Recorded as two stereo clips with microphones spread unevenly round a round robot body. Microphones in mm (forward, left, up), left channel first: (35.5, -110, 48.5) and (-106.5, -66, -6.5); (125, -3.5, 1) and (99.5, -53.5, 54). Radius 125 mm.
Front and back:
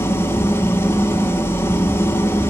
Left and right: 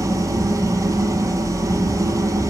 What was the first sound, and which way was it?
An engine running, 90° right.